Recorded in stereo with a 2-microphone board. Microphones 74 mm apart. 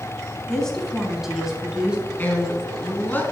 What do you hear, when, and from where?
0.5 s a woman speaking: 10° left (ahead or behind), 1.4 m; by 2.1 s 15° right (ahead or behind), 2.5 m
2.2 s a man speaking: 25° left (ahead or behind), 1.3 m